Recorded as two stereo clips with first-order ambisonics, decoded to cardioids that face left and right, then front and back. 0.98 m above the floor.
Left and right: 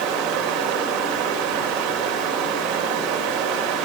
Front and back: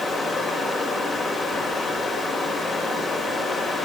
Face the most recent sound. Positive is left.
turn(degrees=-80)